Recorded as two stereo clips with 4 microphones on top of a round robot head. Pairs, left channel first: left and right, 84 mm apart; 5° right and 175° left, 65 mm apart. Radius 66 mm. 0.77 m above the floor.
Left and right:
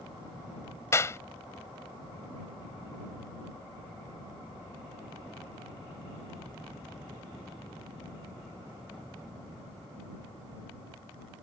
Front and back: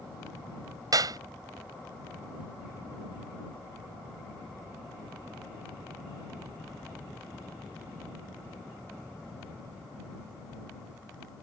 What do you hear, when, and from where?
0.9 s a clap: 150° left